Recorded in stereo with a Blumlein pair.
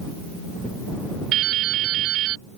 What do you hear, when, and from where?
1.3 s dripping: 35° right